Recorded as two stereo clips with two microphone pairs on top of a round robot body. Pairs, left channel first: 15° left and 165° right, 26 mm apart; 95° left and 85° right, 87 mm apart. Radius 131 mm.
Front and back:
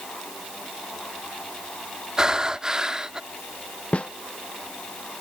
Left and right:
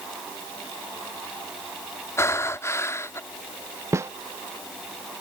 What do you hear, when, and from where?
2.2 s breathing: 135° left
3.9 s a snare drum: 30° right